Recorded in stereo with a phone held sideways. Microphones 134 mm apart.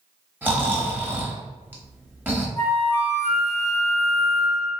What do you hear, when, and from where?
0.4 s snoring: 15° right (ahead or behind), 0.8 m
2.6 s a flute: 15° left (ahead or behind), 0.8 m